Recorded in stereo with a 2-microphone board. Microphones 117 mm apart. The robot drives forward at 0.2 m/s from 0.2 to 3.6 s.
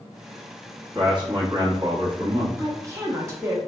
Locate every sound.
0.9 s a man speaking: 40° right (ahead or behind), 1.0 m
2.6 s a woman speaking: 25° right (ahead or behind), 0.5 m